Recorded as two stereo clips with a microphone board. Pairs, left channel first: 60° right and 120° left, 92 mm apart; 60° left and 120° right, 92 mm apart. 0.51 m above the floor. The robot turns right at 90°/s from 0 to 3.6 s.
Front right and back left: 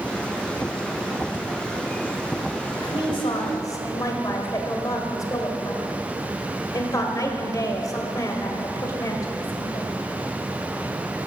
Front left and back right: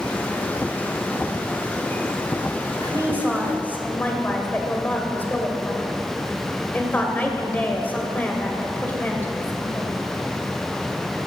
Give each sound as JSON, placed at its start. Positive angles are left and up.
{"t": 1.3, "sound": "breathing", "azimuth_deg": 5, "distance_m": 4.0}
{"t": 2.8, "sound": "a woman speaking", "azimuth_deg": -85, "distance_m": 2.0}